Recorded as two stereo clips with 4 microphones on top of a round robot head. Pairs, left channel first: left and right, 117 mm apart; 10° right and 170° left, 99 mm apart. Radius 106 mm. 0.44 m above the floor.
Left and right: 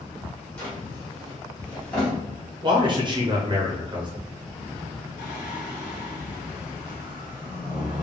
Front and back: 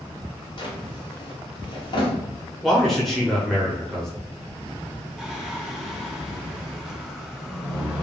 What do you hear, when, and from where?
0.6 s a drawer: 10° left, 1.2 m
2.6 s a man speaking: 95° right, 0.9 m
5.2 s singing: 85° left, 0.7 m